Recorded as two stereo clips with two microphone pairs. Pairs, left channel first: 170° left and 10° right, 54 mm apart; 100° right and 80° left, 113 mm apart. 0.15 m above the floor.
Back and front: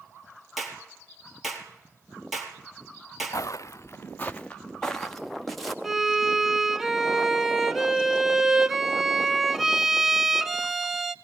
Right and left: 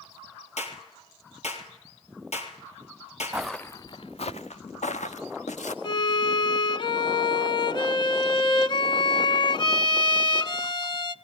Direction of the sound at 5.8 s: 90° right.